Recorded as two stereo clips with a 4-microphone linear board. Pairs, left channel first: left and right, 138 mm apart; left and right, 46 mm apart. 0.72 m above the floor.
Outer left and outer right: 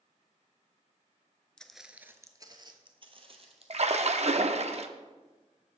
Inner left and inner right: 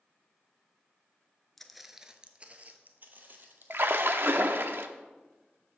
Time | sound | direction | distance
1.6 | footsteps | 5° left (ahead or behind) | 0.7 m
3.7 | a splash | 55° right (ahead or behind) | 0.6 m